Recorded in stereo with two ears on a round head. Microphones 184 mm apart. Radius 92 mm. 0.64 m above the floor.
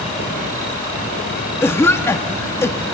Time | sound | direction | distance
1.6 | a cough | 10° left (ahead or behind) | 0.6 m